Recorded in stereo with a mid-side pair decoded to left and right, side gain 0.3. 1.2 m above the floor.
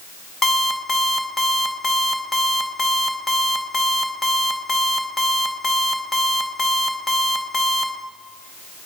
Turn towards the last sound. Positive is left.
turn(degrees=65)